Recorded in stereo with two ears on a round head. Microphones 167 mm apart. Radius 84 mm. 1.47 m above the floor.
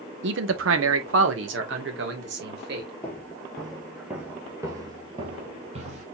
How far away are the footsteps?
About 1.7 m.